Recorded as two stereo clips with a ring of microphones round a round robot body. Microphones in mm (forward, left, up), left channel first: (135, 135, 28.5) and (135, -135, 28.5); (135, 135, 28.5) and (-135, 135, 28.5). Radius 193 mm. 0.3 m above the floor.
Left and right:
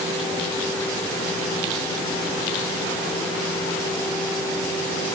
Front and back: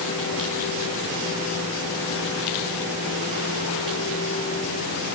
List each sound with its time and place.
Only background noise.